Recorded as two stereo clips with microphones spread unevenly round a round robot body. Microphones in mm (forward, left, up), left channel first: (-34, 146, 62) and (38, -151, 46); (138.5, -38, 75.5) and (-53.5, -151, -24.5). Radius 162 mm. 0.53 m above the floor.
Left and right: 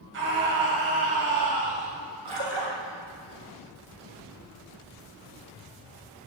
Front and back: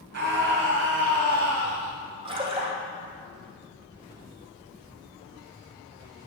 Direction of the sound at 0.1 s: 130° right.